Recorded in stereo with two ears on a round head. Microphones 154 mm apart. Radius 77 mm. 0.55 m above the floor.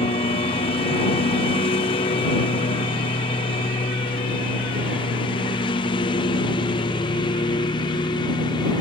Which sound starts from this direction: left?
A lawn mower, at 0.0 s.